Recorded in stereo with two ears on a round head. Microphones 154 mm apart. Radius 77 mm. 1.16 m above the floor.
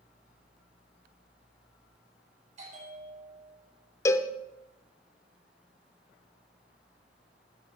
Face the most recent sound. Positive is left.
turn(degrees=15)  # may be behind; listen again after turning